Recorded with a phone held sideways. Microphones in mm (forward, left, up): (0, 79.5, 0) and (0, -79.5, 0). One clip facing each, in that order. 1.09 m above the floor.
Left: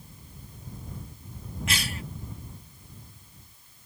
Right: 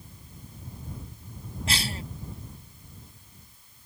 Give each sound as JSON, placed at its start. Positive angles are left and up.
{"t": 1.7, "sound": "a cough", "side_deg": -30}